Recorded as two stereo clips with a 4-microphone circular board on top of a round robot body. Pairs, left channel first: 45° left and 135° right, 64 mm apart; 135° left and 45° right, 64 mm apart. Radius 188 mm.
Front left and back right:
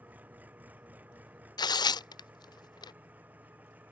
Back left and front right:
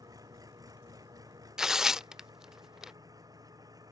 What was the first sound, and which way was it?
An engine running, 70° right.